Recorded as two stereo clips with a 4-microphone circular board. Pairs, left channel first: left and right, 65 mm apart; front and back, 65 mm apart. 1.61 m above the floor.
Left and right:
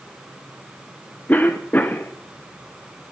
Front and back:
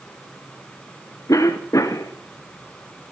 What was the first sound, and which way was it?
A cough, 30° left.